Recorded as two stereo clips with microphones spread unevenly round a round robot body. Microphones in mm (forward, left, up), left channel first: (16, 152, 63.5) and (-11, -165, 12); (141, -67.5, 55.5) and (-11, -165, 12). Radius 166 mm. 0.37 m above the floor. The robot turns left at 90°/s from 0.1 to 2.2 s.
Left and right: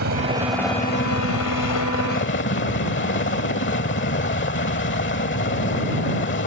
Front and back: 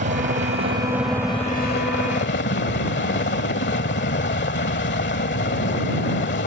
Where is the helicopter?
140° right; by 6.5 s 30° left.